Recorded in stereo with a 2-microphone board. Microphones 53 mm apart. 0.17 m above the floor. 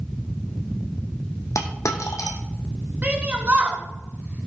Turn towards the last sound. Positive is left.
turn(degrees=-30)  # may be behind; listen again after turning